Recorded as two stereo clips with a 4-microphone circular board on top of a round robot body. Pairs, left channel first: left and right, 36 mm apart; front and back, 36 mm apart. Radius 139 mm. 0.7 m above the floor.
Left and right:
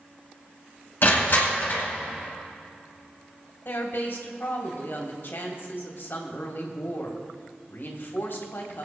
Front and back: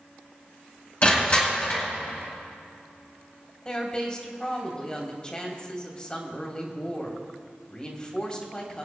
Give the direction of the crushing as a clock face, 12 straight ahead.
10 o'clock.